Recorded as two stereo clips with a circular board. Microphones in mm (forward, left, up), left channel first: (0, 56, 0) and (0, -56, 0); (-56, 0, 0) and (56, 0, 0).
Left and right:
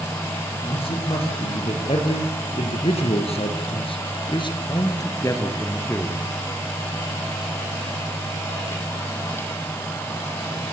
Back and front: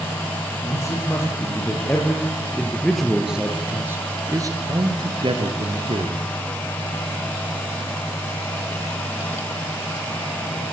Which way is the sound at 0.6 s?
120° left.